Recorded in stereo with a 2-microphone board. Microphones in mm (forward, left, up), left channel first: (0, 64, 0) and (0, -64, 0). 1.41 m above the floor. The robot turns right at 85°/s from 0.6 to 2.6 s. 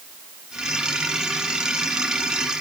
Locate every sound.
Only background noise.